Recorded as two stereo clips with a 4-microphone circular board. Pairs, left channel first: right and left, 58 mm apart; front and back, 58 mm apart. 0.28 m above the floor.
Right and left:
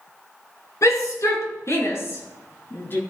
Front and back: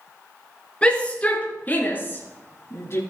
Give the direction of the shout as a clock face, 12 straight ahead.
2 o'clock.